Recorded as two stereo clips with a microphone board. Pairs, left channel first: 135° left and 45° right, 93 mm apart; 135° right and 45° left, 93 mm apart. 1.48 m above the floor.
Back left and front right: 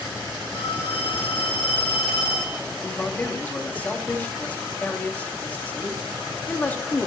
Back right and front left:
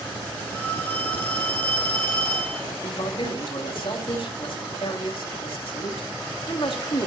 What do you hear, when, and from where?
0.5 s a phone ringing: 150° left, 10 m
2.8 s a man speaking: 155° right, 3 m